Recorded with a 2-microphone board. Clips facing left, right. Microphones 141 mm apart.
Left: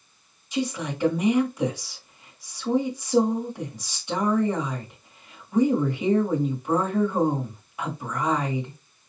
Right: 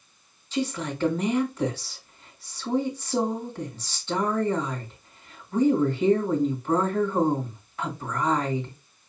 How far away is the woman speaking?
About 1.5 m.